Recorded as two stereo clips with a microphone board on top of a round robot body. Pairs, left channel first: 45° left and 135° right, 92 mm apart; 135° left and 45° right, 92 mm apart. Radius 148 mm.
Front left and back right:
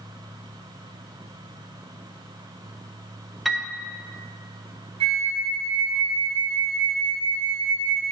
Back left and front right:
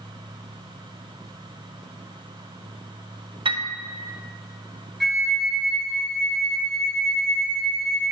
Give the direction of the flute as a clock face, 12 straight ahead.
5 o'clock.